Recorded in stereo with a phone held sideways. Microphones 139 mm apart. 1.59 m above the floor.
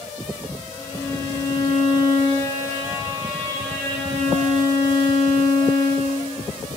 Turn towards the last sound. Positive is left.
turn(degrees=10)  # may be behind; listen again after turning